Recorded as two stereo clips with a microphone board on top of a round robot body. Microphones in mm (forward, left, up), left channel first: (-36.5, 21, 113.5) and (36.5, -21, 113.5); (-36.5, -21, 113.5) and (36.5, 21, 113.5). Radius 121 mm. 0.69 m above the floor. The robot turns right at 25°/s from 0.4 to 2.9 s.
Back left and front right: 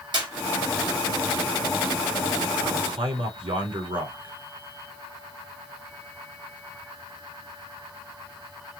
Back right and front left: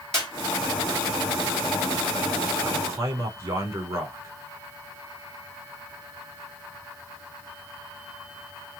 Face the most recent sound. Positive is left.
turn(degrees=-20)